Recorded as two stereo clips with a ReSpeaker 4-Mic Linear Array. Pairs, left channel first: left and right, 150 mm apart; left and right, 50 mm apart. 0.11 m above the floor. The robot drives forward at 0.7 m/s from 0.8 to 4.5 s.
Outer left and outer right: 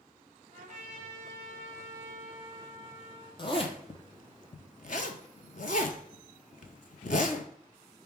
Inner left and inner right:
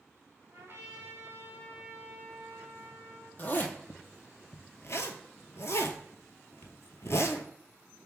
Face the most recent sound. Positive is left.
turn(degrees=60)  # may be behind; listen again after turning